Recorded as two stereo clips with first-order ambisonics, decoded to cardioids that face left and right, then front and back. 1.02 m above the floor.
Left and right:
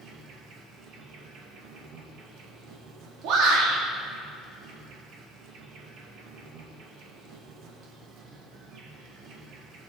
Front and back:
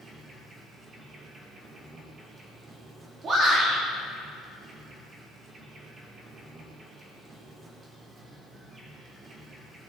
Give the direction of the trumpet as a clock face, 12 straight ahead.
I don't hear a trumpet.